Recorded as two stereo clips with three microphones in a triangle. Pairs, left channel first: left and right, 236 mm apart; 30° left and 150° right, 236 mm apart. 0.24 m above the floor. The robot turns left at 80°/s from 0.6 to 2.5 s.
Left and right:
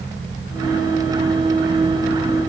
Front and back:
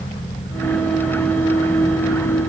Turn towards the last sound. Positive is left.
No sound to turn to.